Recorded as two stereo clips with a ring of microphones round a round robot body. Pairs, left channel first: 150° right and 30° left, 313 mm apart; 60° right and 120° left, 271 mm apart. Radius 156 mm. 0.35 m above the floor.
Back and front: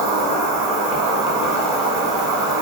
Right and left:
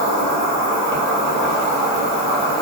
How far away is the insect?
About 1.9 m.